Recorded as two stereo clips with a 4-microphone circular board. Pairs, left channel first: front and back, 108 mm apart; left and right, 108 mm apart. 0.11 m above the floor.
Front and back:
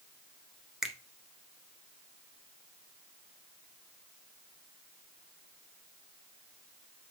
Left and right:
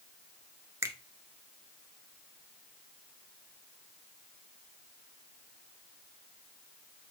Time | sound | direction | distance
0.8 | a finger snap | 100° right | 0.9 m